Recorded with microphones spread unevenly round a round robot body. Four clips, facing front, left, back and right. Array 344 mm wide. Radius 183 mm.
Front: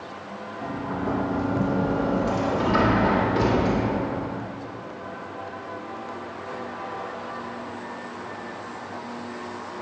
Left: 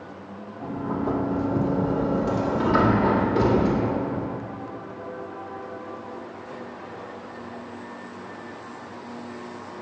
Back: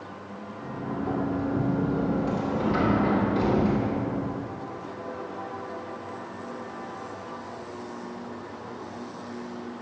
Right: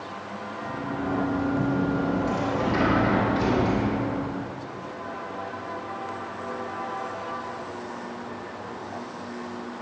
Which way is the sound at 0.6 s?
70° left.